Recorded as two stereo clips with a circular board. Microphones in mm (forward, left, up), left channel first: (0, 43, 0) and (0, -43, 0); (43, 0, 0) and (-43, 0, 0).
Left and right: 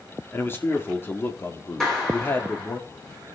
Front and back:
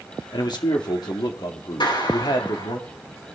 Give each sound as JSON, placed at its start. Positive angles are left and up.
{"t": 0.3, "sound": "a man speaking", "azimuth_deg": 30, "distance_m": 2.5}
{"t": 1.8, "sound": "a clap", "azimuth_deg": 5, "distance_m": 7.5}